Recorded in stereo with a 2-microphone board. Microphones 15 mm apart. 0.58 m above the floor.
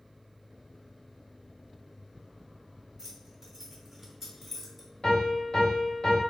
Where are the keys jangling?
25° right (ahead or behind), 2.5 m; by 4.9 s 5° right (ahead or behind), 1.4 m.